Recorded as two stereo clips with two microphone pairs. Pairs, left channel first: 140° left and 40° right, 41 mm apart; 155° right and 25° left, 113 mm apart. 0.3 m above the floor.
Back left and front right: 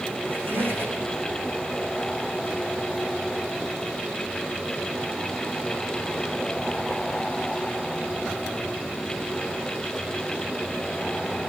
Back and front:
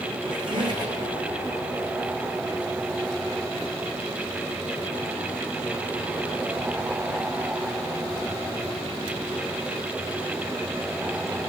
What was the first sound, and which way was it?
A squeak, 20° right.